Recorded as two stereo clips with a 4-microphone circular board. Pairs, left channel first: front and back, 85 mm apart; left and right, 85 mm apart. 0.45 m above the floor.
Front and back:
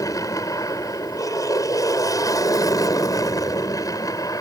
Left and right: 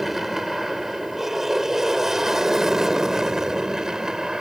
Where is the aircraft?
5° right; by 4.4 s 10° right.